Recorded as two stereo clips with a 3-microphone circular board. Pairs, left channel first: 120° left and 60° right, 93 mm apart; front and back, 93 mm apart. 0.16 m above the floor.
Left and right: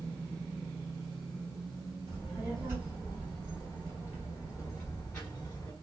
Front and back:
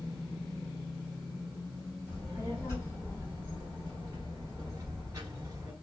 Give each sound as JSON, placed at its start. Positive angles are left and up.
{"t": 2.1, "sound": "a child speaking", "azimuth_deg": -120, "distance_m": 2.0}